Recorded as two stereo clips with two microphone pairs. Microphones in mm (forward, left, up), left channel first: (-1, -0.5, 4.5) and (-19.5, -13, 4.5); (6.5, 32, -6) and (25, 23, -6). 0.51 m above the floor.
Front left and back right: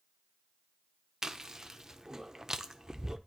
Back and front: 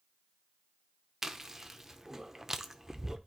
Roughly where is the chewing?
Right.